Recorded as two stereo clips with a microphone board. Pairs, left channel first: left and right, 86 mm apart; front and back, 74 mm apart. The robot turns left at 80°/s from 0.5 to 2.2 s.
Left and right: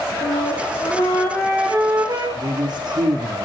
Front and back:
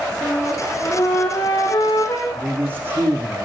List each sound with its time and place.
0.2 s a flute: 80° left, 5.5 m; by 2.2 s 60° right, 5.5 m
2.4 s a man speaking: 115° right, 6 m